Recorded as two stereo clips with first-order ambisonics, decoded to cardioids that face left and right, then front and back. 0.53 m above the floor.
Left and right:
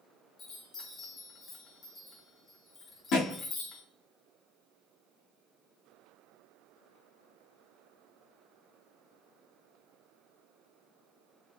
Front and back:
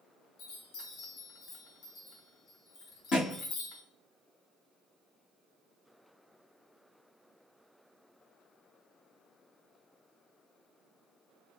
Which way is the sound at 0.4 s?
30° left.